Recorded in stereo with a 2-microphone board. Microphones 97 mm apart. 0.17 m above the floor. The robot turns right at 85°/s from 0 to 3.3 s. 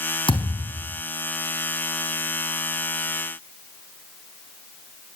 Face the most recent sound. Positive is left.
turn(degrees=-45)